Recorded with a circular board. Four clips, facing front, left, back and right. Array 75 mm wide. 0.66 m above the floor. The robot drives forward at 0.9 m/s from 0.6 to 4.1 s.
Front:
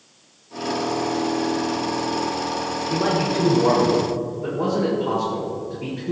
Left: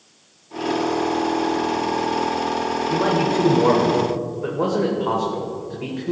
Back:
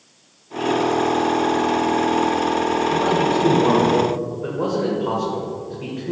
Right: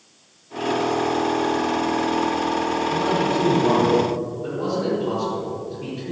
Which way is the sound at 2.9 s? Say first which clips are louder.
Left 4 dB, front 1 dB; 75° left.